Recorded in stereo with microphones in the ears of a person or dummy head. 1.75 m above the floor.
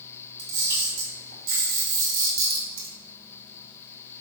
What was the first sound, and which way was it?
A camera shutter, 70° right (ahead or behind).